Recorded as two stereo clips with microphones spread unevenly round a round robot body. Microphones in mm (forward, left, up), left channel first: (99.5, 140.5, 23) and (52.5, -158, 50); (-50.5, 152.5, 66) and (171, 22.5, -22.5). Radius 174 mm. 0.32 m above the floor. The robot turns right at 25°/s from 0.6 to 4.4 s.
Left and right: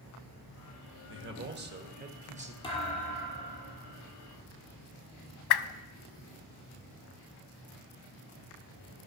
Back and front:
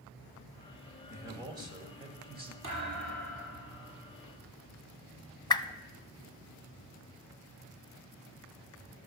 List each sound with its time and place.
1.1 s a man speaking: 70° right, 1.3 m; by 2.5 s 35° right, 1.3 m
2.6 s a thud: 5° left, 4.5 m; by 3.9 s 40° left, 4.5 m
5.5 s a whoosh: 75° left, 0.6 m